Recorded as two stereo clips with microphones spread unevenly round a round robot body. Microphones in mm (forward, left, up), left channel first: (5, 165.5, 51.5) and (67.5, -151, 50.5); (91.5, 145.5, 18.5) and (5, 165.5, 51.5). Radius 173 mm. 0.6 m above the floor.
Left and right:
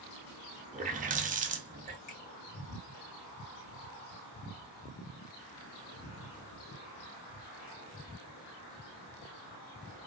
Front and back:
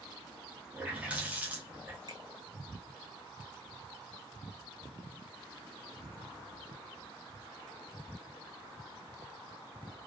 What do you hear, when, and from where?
0.7 s a running tap: 90° right, 0.5 m
2.1 s a finger snap: 120° left, 1.6 m